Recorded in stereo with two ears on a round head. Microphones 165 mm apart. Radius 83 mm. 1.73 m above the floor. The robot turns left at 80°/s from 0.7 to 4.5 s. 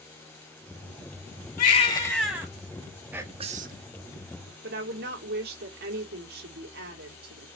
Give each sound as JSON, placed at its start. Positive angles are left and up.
{"t": 1.6, "sound": "a baby crying", "azimuth_deg": 55, "distance_m": 3.5}
{"t": 3.1, "sound": "whispering", "azimuth_deg": -10, "distance_m": 1.3}
{"t": 4.6, "sound": "a woman speaking", "side_deg": -60, "distance_m": 2.5}